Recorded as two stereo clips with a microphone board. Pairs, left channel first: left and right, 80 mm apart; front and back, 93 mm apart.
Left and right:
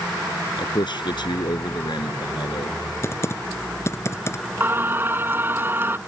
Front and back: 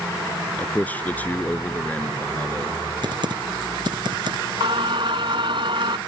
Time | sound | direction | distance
0.6 | a man speaking | 70° left | ?
3.0 | typing on a keyboard | 145° left | ?
4.6 | singing | 150° right | ?